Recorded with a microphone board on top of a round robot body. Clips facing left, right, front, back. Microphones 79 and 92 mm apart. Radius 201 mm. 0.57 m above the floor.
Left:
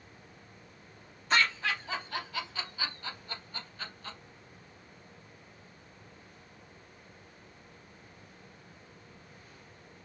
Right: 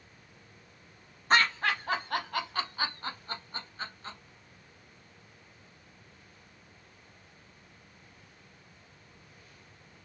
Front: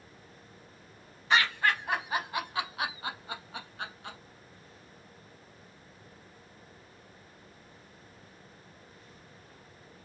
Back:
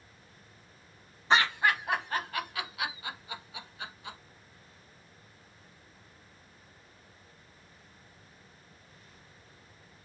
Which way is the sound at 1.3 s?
125° right.